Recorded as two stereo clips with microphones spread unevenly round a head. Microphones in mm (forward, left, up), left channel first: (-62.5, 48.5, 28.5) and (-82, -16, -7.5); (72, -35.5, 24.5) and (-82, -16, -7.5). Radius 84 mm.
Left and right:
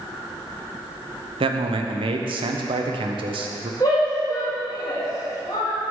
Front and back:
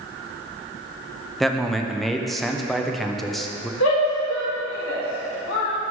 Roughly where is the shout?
Ahead.